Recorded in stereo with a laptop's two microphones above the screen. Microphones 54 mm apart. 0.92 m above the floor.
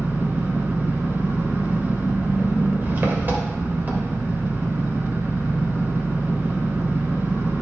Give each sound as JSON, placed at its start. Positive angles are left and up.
{"t": 0.0, "sound": "an engine running", "side_deg": -35, "distance_m": 2.5}